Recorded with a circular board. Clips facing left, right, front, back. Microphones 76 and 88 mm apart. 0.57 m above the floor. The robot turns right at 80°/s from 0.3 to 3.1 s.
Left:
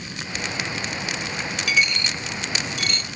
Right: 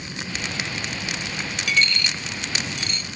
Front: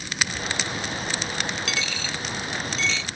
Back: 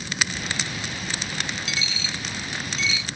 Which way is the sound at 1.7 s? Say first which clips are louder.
Even, front 2 dB; straight ahead.